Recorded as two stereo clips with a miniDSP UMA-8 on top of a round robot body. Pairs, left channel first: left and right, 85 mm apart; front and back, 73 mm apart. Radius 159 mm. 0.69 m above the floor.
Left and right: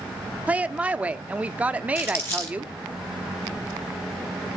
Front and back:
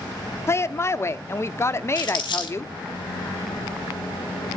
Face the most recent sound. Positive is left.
turn(degrees=30)